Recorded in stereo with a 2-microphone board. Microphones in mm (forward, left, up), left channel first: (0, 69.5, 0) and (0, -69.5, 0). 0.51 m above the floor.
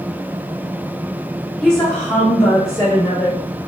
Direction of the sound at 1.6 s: 5° left (ahead or behind).